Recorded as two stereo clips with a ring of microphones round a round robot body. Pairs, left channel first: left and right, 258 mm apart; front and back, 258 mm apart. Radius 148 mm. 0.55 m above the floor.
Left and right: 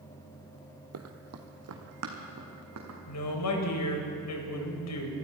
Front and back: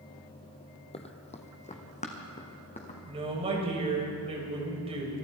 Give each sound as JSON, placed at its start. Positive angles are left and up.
{"t": 0.9, "sound": "running footsteps", "azimuth_deg": -65, "distance_m": 1.1}
{"t": 3.1, "sound": "a woman speaking", "azimuth_deg": 110, "distance_m": 3.0}